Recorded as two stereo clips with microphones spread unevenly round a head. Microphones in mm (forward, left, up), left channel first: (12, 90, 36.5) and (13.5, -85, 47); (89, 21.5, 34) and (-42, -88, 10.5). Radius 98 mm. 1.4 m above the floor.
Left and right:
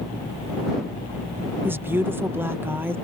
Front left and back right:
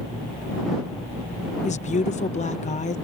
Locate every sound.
1.6 s a woman speaking: 10° right